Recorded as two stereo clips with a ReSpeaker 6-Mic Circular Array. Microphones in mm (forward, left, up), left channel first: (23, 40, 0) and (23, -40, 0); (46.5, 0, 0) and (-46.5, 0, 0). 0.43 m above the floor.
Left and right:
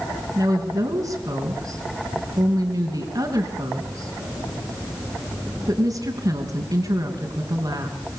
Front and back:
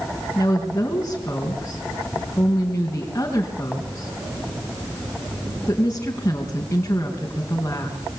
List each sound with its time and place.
0.3 s a woman speaking: 65° right, 4.5 m